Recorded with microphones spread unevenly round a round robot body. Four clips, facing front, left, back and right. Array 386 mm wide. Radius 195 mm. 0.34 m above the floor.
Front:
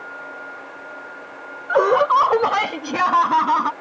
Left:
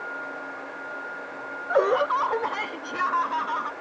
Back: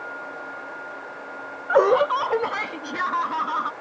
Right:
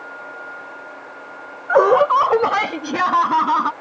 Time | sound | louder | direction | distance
1.7 | laughter | right 9 dB, front 2 dB | 90° right | ?